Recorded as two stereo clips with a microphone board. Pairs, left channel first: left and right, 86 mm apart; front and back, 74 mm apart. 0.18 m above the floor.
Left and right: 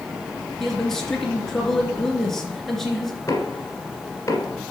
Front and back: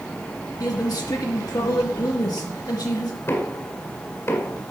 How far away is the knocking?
About 1.9 m.